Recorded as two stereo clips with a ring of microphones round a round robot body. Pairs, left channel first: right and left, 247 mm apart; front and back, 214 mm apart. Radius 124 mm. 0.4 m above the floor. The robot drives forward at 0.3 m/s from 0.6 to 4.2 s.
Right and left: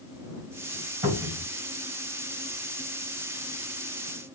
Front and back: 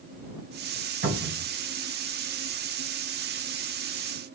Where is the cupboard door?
145° left, 2.5 m; by 1.5 s 150° left, 2.5 m.